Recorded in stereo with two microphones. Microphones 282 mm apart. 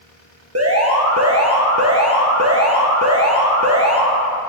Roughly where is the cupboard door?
I don't hear a cupboard door.